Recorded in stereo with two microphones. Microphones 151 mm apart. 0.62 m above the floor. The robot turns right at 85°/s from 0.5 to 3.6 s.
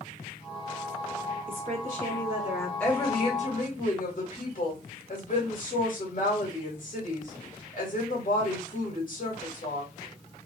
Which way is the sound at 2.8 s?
10° left.